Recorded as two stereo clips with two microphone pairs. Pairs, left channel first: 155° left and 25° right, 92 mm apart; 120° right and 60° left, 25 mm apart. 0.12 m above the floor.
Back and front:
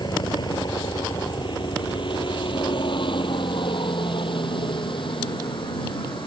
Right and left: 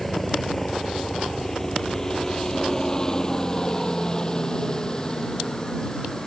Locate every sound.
0.0 s a helicopter: 155° left; by 6.3 s 175° left